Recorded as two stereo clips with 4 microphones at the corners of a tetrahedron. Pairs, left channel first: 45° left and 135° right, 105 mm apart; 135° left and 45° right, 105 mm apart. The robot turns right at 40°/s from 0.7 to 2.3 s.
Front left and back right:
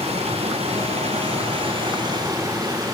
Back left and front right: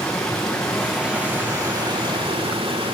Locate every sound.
0.0 s running water: 140° right, 6.5 m; by 3.0 s 75° right, 6.5 m